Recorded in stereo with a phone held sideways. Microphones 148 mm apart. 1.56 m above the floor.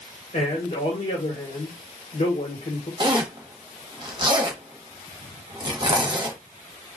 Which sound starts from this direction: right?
A zipper, at 3.0 s.